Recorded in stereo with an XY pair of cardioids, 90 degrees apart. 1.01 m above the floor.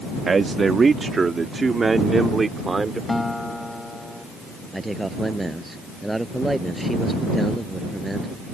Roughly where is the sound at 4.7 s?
Ahead.